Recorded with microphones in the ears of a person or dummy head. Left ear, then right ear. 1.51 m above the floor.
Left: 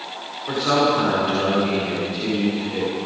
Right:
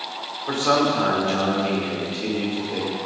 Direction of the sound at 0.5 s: 35° right (ahead or behind).